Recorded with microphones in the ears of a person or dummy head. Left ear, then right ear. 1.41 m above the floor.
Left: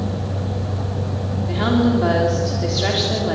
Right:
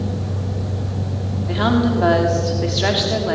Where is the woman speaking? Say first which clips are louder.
Right 1 dB; 20° right (ahead or behind), 3 m.